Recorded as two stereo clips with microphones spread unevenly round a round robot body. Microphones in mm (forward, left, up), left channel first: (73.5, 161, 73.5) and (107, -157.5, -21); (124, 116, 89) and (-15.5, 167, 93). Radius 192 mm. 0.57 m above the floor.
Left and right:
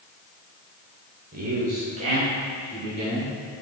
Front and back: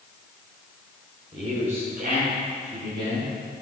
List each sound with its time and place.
1.3 s a man speaking: 140° right, 1.9 m; by 3.3 s 160° right, 4.5 m